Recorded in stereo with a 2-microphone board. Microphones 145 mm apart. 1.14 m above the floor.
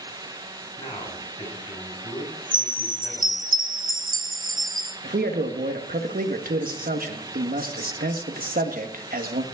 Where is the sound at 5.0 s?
80° right, 1.4 m.